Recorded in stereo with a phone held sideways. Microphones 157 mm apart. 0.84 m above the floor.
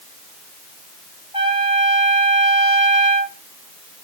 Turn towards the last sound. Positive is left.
turn(degrees=-30)  # may be behind; listen again after turning